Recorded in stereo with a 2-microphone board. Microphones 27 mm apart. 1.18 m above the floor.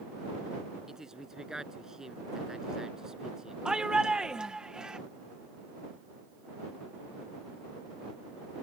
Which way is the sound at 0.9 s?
20° right (ahead or behind).